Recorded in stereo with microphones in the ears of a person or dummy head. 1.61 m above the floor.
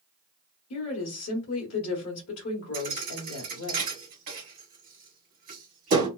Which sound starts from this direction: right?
A thud, at 2.7 s.